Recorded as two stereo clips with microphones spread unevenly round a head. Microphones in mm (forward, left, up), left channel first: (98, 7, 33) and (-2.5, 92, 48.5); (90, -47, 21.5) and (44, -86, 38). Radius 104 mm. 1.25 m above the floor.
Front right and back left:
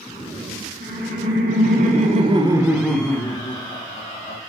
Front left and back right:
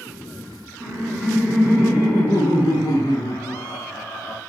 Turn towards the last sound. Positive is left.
turn(degrees=5)